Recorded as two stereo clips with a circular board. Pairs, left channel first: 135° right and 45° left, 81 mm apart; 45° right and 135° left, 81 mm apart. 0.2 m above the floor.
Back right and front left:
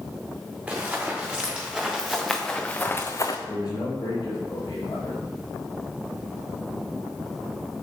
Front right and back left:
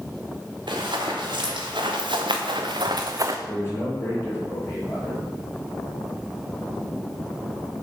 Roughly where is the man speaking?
Right.